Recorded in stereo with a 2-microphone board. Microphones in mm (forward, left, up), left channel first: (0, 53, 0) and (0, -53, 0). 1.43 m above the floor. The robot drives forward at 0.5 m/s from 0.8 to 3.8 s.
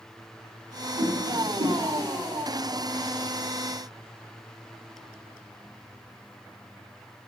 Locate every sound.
1.0 s a whoosh: 75° right (ahead or behind), 2.5 m; by 1.8 s 85° right, 2 m